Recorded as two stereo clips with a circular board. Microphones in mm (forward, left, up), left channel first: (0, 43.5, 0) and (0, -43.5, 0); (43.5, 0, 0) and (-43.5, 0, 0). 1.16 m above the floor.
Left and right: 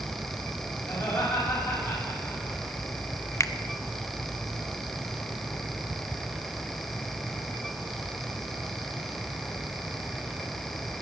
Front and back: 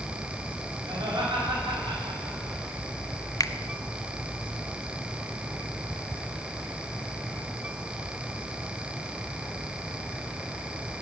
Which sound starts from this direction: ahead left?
A finger snap, at 3.4 s.